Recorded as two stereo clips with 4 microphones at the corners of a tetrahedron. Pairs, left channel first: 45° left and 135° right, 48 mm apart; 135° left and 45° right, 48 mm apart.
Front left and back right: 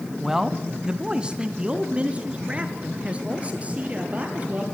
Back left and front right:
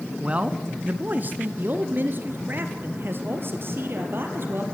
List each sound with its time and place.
0.2 s a man speaking: 65° right, 1.1 m; by 4.6 s 75° right, 3.5 m